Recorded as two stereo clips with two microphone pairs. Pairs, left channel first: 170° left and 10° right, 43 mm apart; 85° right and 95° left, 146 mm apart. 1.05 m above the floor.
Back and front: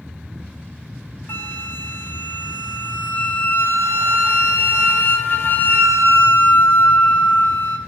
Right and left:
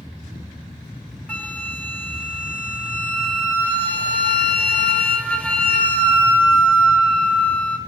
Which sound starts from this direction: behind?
A flute, at 1.3 s.